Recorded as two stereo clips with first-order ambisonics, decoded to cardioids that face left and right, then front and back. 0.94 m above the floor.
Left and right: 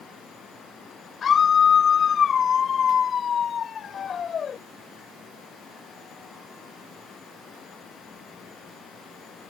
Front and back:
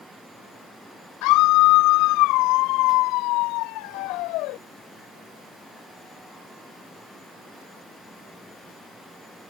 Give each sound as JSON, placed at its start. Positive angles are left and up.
{"t": 1.2, "sound": "a scream", "azimuth_deg": 25}